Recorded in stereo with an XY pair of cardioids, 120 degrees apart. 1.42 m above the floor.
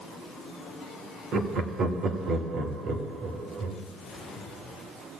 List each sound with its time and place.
1.3 s laughter: 60° right, 1.6 m